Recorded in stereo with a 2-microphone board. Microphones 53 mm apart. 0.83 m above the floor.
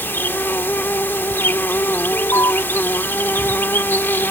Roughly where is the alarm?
Left.